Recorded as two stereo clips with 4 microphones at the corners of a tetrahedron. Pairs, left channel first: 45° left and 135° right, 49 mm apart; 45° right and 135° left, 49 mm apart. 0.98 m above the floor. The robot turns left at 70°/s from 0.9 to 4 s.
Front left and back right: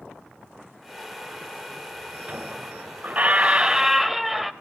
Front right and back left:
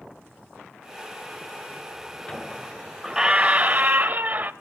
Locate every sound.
2.3 s a squeak: 100° right, 0.9 m; by 4.5 s 140° left, 0.9 m